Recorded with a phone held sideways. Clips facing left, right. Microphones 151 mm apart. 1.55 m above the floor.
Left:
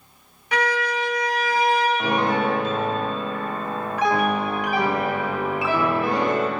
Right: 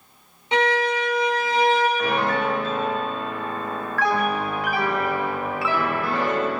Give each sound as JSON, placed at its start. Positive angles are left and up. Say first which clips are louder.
{"t": 0.5, "sound": "a violin", "louder": "right 3 dB", "side_deg": -25, "distance_m": 0.7}
{"t": 2.0, "sound": "a piano", "louder": "left 1 dB", "side_deg": 20, "distance_m": 0.6}